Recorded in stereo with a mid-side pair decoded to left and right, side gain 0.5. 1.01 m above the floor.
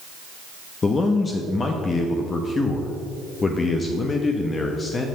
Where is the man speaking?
35° left, 1.0 m.